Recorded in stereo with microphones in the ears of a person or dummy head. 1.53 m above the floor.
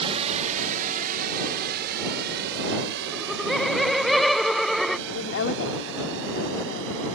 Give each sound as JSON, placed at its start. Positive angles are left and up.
{"t": 0.0, "sound": "a drone", "side_deg": -30}
{"t": 3.1, "sound": "laughter", "side_deg": 0}
{"t": 5.1, "sound": "a woman speaking", "side_deg": 60}